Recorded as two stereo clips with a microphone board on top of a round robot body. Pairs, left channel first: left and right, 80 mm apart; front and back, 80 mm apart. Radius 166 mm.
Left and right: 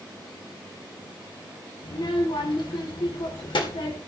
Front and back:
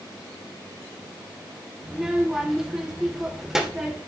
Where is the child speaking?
95° left, 2.5 m.